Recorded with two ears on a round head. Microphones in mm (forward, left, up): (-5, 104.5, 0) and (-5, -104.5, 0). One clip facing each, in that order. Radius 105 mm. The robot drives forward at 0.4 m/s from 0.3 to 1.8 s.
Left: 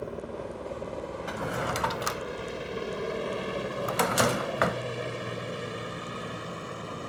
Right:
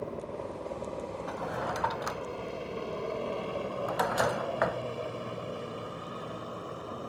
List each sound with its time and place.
0.0 s a helicopter: 20° left (ahead or behind); by 7.1 s 35° left (ahead or behind)
1.3 s a drawer: 35° left (ahead or behind); by 4.8 s 40° left (ahead or behind)